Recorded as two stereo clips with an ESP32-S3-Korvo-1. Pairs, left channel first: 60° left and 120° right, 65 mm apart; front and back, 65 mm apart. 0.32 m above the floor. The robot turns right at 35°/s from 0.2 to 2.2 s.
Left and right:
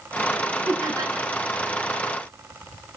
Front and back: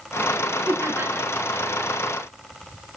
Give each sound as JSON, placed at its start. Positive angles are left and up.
{"t": 0.7, "sound": "laughter", "azimuth_deg": -140, "distance_m": 3.5}